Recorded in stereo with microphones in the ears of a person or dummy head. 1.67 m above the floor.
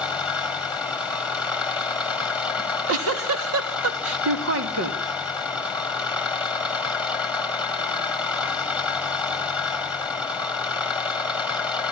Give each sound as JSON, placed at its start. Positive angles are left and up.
{"t": 0.0, "sound": "an engine running", "side_deg": -5, "distance_m": 2.5}
{"t": 2.6, "sound": "a giggle", "side_deg": -80, "distance_m": 3.0}